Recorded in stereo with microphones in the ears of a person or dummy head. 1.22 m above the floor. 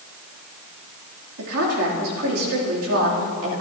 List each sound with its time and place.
1.4 s a woman speaking: 70° right (ahead or behind), 3 m